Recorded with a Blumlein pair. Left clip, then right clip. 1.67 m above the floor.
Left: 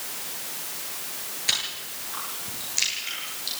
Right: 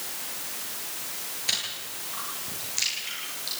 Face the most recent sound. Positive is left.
turn(degrees=10)